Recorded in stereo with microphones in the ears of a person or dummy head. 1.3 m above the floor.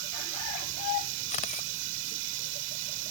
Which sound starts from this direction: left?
A camera shutter, at 1.3 s.